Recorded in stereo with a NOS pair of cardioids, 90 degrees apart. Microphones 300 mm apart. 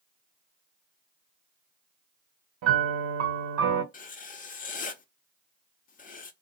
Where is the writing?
30° left, 0.6 m.